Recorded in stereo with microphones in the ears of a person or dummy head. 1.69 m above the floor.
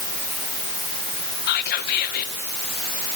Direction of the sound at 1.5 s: 60° left (ahead or behind).